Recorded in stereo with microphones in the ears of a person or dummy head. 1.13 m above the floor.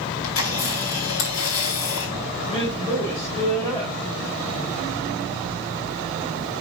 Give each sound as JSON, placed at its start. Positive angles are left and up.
{"t": 0.2, "sound": "a camera shutter", "side_deg": 80, "distance_m": 3.5}
{"t": 2.5, "sound": "a woman speaking", "side_deg": 25, "distance_m": 2.0}